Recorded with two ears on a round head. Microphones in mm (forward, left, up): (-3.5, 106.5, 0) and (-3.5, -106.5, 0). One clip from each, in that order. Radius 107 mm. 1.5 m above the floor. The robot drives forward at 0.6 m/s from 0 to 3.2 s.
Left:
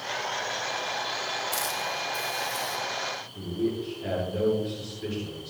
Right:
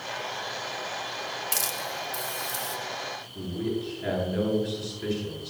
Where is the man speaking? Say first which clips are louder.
Left 1 dB; 35° right (ahead or behind), 10 m.